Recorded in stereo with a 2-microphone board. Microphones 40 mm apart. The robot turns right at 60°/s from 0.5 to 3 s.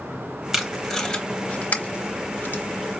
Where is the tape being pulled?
15° right (ahead or behind), 0.8 m; by 2.6 s 50° left (ahead or behind), 0.8 m.